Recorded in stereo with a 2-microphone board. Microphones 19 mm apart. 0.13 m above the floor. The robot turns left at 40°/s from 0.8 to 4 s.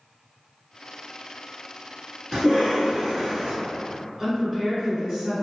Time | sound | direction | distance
2.3 | a cough | 80° right | 1.3 m
4.2 | a woman speaking | 30° right (ahead or behind) | 2.0 m